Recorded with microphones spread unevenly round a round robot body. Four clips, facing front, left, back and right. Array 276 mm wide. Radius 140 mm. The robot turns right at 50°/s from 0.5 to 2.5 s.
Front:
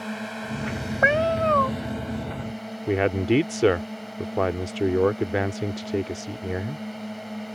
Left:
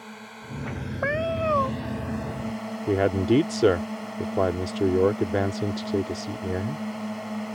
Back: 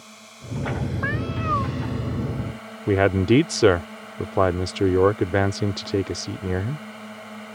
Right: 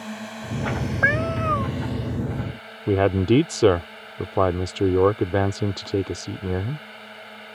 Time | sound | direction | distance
0.0 | a drone | 35° right | ?
1.0 | a cat meowing | 10° left | ?
2.9 | a man speaking | 135° right | ?